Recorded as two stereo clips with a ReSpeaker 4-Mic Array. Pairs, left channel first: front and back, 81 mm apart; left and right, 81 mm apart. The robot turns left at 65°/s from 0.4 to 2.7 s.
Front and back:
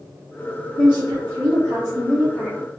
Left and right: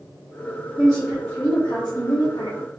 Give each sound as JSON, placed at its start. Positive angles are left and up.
{"t": 0.8, "sound": "a woman speaking", "azimuth_deg": -165, "distance_m": 1.0}